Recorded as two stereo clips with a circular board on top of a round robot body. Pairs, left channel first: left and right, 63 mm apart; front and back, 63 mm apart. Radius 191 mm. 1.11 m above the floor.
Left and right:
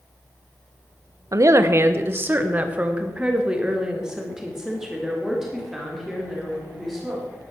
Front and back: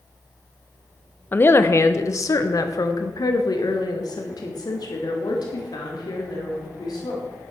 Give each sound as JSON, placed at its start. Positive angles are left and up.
{"t": 1.3, "sound": "a woman speaking", "azimuth_deg": -60, "distance_m": 1.0}